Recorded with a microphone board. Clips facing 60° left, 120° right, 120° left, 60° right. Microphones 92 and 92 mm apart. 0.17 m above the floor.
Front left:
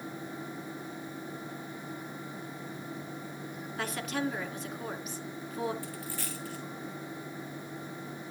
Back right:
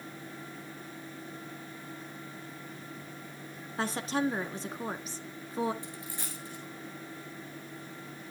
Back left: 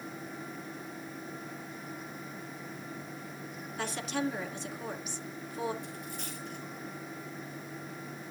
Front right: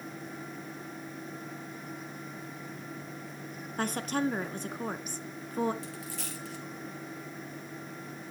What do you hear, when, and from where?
3.8 s a woman speaking: 75° right, 1.6 m
5.8 s a dropped coin: 50° right, 3 m